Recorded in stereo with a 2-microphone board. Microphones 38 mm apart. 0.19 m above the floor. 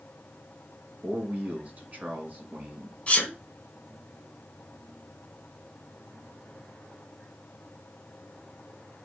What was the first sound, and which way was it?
A man speaking, 45° right (ahead or behind).